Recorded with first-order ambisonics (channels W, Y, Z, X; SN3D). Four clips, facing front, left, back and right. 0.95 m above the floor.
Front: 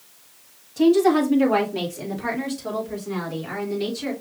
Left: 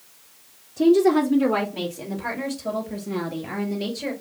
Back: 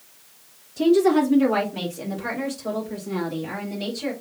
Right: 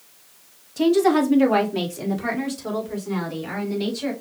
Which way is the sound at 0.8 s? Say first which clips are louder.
Left 1 dB, front 1 dB; 70° right.